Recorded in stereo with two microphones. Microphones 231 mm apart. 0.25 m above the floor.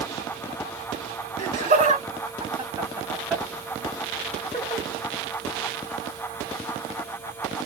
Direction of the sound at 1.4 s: 40° right (ahead or behind).